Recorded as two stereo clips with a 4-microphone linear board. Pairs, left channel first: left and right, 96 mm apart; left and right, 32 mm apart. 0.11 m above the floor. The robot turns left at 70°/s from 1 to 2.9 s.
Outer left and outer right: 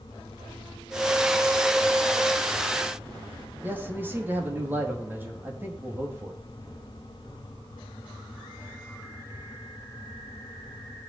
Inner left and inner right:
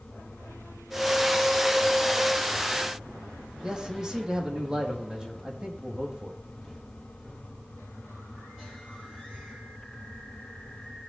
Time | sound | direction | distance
3.6 | a man speaking | 20° right (ahead or behind) | 4.5 m